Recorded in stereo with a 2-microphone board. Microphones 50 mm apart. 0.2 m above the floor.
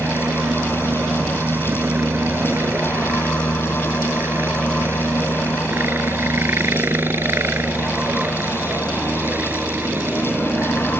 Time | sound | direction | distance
0.0 | a helicopter | 60° right (ahead or behind) | ?